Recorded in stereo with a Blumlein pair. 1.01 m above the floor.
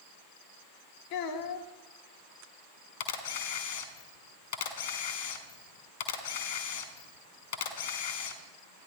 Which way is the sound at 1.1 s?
45° left.